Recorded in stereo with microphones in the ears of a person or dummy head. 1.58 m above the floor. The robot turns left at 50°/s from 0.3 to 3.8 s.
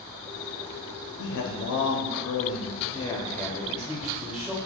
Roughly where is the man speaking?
Behind left.